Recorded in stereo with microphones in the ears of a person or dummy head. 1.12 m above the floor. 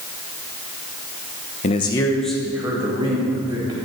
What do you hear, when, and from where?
1.6 s a man speaking: 35° left (ahead or behind), 0.9 m; by 3.8 s 20° right (ahead or behind), 3 m